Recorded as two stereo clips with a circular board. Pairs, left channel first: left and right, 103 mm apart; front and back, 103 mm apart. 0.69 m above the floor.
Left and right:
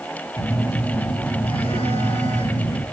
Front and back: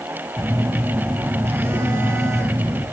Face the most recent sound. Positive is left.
turn(degrees=110)